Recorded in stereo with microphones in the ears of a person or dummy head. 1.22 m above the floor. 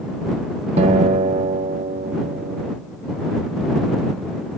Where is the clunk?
I don't hear a clunk.